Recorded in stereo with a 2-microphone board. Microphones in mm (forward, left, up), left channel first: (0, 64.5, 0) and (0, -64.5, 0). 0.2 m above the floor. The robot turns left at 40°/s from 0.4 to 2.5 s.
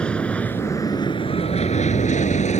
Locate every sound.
0.0 s an aircraft: 10° left (ahead or behind); by 2.6 s 65° left (ahead or behind)